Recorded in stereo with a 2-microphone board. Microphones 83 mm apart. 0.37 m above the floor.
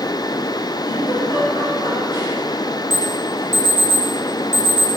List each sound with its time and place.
0.8 s a giggle: 60° left (ahead or behind), 6 m
2.9 s an alarm: 30° left (ahead or behind), 3.5 m